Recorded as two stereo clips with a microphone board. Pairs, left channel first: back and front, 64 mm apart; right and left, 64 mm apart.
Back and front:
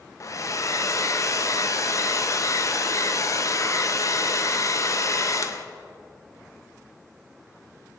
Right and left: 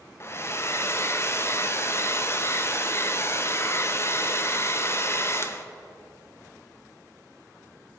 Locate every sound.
0.2 s a hair dryer: 140° right, 0.6 m